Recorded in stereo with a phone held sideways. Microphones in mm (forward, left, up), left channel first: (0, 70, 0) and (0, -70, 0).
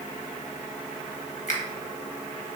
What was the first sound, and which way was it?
A finger snap, 60° left (ahead or behind).